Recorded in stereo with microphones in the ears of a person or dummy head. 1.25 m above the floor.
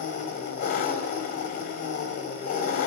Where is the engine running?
50° left (ahead or behind), 1.5 m.